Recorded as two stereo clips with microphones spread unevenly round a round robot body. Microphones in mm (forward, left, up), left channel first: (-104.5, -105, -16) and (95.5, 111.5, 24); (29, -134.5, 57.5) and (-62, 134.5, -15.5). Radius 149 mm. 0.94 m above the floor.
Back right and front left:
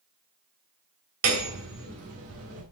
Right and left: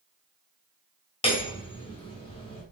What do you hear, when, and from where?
1.2 s hammering: straight ahead, 3 m